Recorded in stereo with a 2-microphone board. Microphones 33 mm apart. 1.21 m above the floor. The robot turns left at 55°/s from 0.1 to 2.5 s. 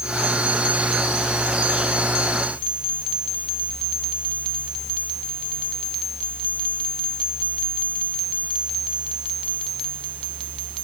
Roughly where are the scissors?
I don't hear scissors.